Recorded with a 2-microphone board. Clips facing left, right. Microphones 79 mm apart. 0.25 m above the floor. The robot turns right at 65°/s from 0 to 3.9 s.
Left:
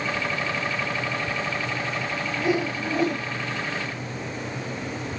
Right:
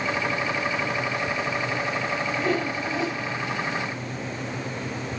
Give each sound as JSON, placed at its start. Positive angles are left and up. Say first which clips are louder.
{"t": 2.4, "sound": "a whoosh", "louder": "left 4 dB", "azimuth_deg": 0, "distance_m": 0.9}